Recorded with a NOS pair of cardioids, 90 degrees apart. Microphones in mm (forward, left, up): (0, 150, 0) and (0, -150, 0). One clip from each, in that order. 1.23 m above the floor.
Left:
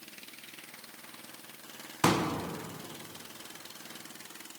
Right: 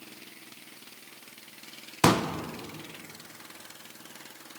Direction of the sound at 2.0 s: 25° right.